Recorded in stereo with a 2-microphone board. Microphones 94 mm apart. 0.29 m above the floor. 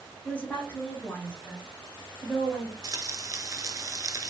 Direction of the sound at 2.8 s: 35° right (ahead or behind).